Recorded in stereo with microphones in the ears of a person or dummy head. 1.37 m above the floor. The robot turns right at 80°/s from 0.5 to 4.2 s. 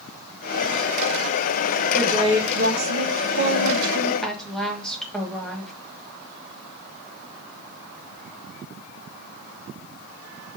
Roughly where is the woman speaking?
Behind.